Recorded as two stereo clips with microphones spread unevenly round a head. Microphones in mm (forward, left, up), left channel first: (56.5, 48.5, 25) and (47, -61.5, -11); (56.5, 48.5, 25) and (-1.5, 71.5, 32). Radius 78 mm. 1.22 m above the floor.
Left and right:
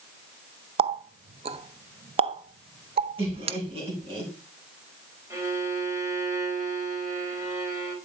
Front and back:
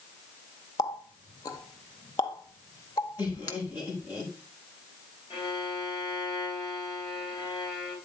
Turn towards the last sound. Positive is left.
turn(degrees=-35)